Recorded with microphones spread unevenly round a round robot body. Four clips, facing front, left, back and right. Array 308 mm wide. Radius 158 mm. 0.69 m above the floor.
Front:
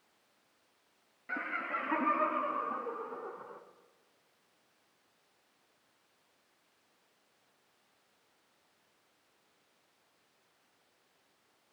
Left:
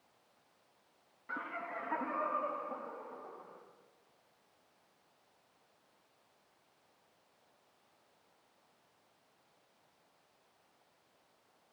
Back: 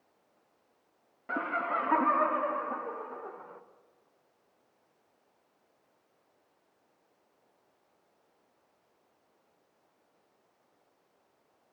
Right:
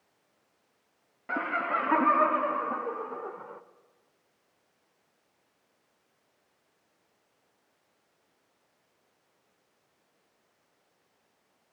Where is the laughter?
115° right, 0.8 m; by 3.6 s 70° right, 2.5 m.